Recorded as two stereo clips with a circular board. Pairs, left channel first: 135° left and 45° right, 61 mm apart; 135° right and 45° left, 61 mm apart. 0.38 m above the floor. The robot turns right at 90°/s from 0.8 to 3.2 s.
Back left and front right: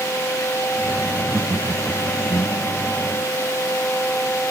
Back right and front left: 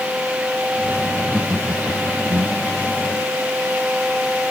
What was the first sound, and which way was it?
Laughter, 35° right.